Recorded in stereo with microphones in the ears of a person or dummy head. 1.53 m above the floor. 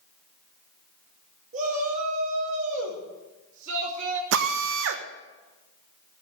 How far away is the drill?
About 1.1 m.